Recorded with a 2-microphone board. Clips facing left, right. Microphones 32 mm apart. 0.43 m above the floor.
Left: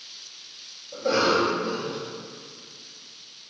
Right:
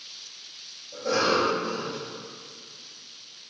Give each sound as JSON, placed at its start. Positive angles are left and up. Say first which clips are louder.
{"t": 0.9, "sound": "a cough", "louder": "left 2 dB", "side_deg": 35, "distance_m": 2.5}